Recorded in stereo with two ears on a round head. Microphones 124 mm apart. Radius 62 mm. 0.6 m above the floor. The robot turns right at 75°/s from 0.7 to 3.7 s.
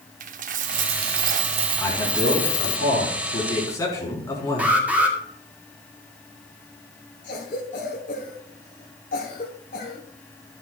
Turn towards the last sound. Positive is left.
turn(degrees=75)  # may be behind; listen again after turning